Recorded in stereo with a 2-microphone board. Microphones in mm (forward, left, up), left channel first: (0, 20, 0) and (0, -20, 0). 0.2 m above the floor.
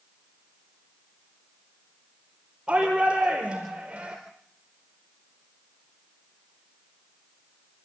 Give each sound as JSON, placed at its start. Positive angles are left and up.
{"t": 2.7, "sound": "a shout", "side_deg": -20, "distance_m": 4.0}